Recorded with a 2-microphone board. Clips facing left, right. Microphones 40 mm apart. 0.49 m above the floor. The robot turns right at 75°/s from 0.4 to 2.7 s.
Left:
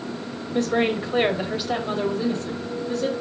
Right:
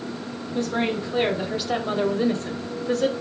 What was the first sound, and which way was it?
A woman speaking, 95° left.